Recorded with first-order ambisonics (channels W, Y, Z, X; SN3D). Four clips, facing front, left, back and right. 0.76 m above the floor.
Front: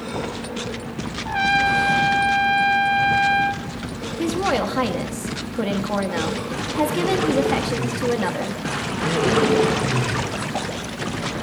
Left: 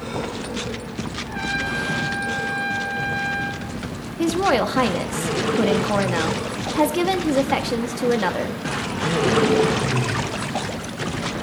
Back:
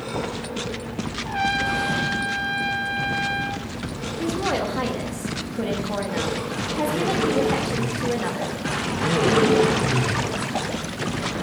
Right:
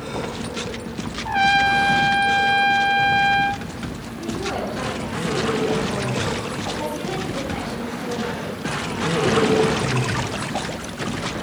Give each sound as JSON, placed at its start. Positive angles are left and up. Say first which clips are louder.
{"t": 1.2, "sound": "a trumpet", "louder": "right 10 dB, front 5 dB", "azimuth_deg": -75, "distance_m": 0.6}
{"t": 4.2, "sound": "a woman speaking", "louder": "left 8 dB, front 3 dB", "azimuth_deg": 70, "distance_m": 0.7}